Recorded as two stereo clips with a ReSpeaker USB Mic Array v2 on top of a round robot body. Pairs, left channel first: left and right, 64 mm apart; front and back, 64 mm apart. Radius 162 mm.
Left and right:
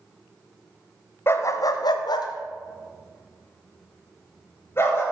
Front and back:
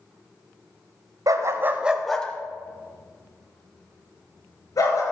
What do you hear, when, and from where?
1.3 s a dog barking: 145° left, 0.9 m; by 5.0 s 35° left, 3.5 m